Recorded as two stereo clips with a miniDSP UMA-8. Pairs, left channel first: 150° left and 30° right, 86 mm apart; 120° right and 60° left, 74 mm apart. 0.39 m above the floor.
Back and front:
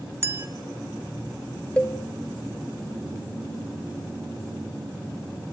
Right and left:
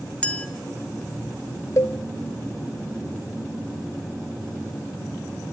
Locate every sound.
0.2 s a clink: 60° right, 0.6 m
1.8 s a cowbell: 140° right, 1.0 m